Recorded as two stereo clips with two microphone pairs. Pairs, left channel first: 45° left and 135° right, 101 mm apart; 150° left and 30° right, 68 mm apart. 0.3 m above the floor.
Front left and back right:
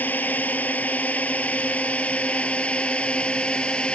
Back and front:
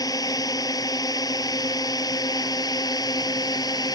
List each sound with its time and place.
0.0 s a drone: 120° left; by 4.0 s 125° left